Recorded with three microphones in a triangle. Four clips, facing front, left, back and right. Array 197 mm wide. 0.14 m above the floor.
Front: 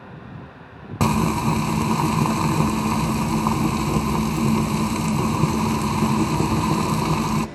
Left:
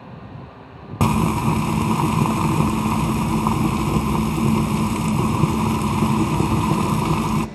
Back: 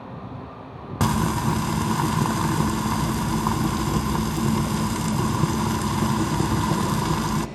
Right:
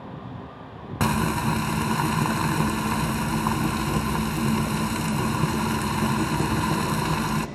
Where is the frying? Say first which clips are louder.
Left 5 dB, front 3 dB; 70° left, 1.0 m.